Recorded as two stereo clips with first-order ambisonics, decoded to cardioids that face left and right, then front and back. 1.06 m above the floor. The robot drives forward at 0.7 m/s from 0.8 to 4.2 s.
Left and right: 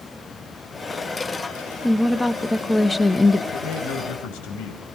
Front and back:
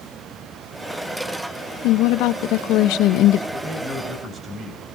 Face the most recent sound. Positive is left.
turn(degrees=110)